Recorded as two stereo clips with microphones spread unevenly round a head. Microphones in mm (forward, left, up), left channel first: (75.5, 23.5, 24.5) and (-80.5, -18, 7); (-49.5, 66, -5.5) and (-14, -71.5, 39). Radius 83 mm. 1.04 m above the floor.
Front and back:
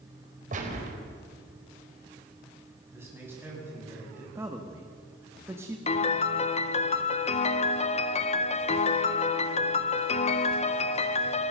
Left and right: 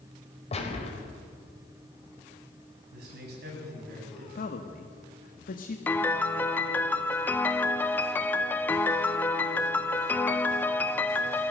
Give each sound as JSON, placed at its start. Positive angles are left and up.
{"t": 0.5, "sound": "a gunshot", "azimuth_deg": 150, "distance_m": 4.5}
{"t": 2.9, "sound": "a man speaking", "azimuth_deg": -90, "distance_m": 8.5}
{"t": 4.3, "sound": "a man speaking", "azimuth_deg": 120, "distance_m": 1.5}
{"t": 5.9, "sound": "a piano", "azimuth_deg": 55, "distance_m": 0.9}